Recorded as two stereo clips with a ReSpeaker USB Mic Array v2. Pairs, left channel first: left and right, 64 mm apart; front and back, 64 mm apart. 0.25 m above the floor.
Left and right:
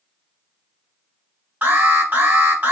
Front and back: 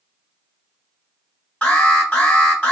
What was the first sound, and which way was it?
An alarm, 65° right.